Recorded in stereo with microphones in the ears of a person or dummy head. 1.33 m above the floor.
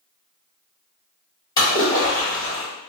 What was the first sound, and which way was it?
A splash, 20° left (ahead or behind).